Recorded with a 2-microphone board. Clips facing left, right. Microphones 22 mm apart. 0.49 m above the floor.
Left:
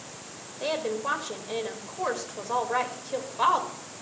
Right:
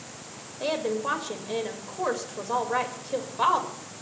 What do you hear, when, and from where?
0.6 s a woman speaking: 5° left (ahead or behind), 2.5 m